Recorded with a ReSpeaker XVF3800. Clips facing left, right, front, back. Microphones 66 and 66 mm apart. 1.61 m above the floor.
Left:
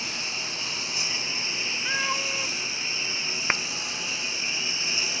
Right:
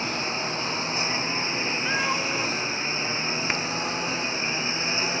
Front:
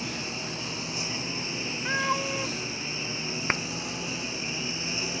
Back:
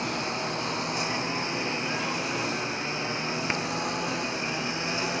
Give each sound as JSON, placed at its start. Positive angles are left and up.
{"t": 0.0, "sound": "a lawn mower", "azimuth_deg": -145}
{"t": 1.9, "sound": "a cat meowing", "azimuth_deg": -5}
{"t": 3.5, "sound": "a clap", "azimuth_deg": 35}